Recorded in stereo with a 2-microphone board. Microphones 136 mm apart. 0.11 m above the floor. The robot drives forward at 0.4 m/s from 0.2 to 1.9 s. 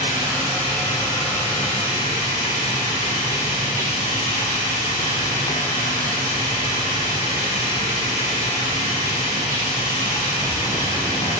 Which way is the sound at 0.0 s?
45° left (ahead or behind).